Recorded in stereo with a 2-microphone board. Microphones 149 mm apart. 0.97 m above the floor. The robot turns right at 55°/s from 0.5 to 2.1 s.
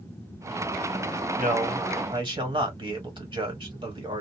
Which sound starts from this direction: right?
A man speaking, at 1.4 s.